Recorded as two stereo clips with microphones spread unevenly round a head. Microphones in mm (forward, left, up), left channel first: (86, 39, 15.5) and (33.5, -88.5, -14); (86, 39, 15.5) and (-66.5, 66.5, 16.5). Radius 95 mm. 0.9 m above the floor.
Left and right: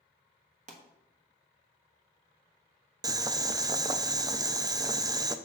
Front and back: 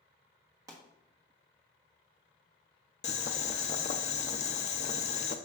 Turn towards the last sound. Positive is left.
turn(degrees=-60)